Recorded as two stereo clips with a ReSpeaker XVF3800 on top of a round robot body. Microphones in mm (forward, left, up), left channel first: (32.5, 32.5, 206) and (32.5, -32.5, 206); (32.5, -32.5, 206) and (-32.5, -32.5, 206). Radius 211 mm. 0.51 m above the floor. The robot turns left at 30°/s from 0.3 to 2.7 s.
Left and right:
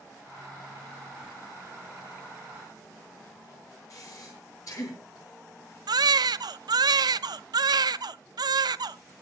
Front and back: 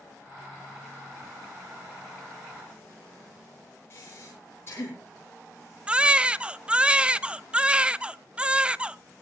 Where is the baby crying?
105° right, 0.5 m.